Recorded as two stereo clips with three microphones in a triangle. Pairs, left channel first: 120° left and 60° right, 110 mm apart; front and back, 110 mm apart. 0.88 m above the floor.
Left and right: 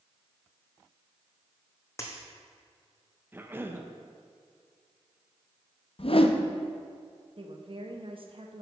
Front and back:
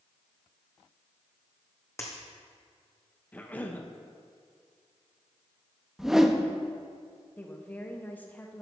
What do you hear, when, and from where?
2.0 s a dropped coin: 60° left, 1.8 m
3.3 s a cough: 45° right, 0.7 m
6.0 s a whoosh: 95° left, 0.6 m
7.4 s a woman speaking: 70° right, 1.1 m